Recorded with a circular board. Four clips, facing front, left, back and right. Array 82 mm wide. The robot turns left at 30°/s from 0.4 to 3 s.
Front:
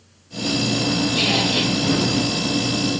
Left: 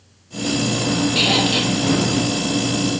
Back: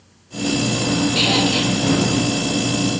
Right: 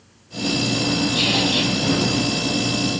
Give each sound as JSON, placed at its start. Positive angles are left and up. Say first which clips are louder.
{"t": 1.1, "sound": "a squeak", "louder": "left 2 dB, back 3 dB", "azimuth_deg": 125, "distance_m": 2.5}